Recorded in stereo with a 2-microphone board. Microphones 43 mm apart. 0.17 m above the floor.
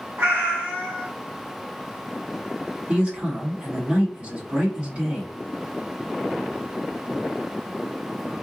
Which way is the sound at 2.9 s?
35° right (ahead or behind).